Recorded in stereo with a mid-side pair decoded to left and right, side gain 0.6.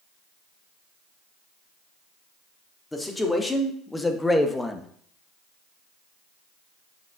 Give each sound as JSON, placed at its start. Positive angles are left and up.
{"t": 2.9, "sound": "a man speaking", "azimuth_deg": 15, "distance_m": 2.5}